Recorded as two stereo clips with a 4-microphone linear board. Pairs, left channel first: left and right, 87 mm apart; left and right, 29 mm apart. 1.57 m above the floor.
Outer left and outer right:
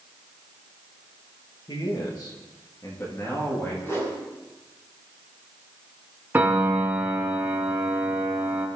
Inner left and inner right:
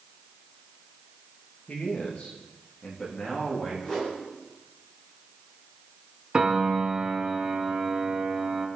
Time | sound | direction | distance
1.7 | a man speaking | 60° left (ahead or behind) | 2.5 m
3.8 | a whoosh | 30° left (ahead or behind) | 7 m
6.3 | a piano | 20° right (ahead or behind) | 3 m